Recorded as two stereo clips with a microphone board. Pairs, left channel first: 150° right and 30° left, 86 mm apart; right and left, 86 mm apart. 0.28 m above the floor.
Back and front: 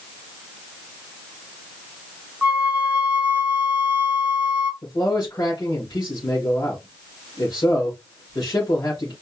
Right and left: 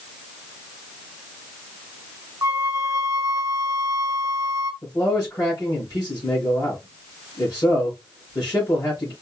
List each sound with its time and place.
2.4 s a flute: 80° left, 0.9 m
4.8 s a man speaking: 130° right, 3 m